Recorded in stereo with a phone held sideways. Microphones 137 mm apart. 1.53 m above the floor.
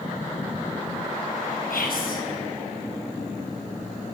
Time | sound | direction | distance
1.7 | whispering | 85° left | 1.4 m